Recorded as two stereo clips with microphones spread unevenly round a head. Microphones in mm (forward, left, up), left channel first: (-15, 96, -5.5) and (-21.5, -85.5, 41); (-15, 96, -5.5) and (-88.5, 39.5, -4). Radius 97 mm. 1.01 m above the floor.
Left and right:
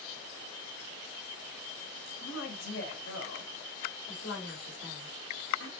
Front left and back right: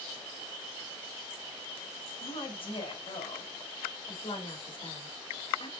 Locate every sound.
2.2 s a woman speaking: 65° left, 5 m